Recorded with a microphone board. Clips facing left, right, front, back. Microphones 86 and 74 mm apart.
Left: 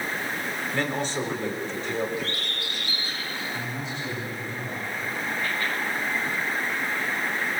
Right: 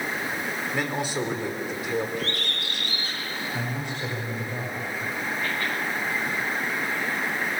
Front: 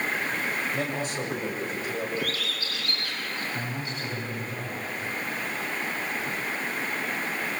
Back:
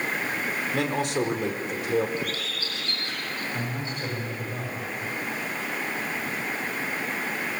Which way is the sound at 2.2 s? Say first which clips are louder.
Right 1 dB, even; 120° right.